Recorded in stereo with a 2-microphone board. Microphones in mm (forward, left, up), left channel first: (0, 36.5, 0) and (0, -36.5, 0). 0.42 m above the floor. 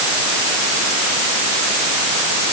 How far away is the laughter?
I don't hear laughter.